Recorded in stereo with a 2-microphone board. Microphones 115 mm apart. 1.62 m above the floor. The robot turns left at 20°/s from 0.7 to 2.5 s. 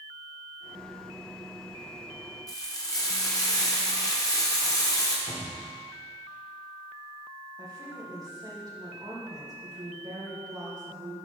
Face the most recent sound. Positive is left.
turn(degrees=-30)  # may be behind; listen again after turning